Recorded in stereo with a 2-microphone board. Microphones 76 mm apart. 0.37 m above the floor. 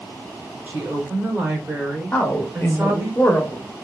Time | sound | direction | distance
0.7 | a woman speaking | 30° right (ahead or behind) | 1.1 m
2.1 | a man speaking | 25° left (ahead or behind) | 0.9 m